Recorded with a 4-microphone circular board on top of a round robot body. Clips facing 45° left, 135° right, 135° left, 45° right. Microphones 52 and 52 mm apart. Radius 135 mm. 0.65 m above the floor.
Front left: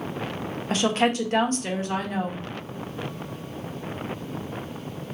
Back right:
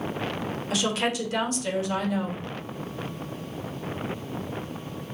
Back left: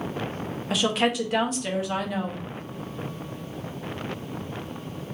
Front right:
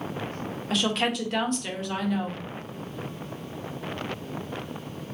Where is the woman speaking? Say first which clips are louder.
Front left 5 dB, back left 2 dB; 50° left, 1.1 m.